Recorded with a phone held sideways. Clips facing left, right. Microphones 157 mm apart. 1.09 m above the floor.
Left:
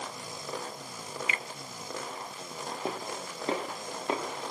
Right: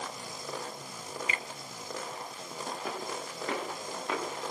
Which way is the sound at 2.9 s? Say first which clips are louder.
Left 1 dB; 30° left (ahead or behind).